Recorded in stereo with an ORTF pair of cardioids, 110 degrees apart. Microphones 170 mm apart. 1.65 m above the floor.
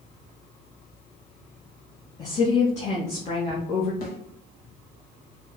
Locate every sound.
2.2 s a woman speaking: 40° left, 2.5 m
4.0 s a snare drum: 60° left, 2.5 m